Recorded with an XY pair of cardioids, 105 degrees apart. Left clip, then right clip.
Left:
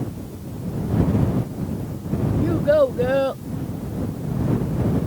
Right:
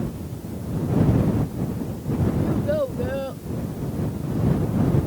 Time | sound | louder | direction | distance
2.4 | a child speaking | left 9 dB | 50° left | ?